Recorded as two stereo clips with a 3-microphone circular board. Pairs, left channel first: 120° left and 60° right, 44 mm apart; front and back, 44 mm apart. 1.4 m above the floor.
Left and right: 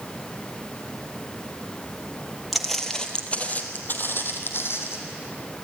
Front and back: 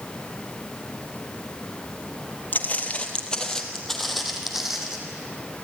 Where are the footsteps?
25° left, 1.9 m; by 5.0 s 100° left, 3.5 m.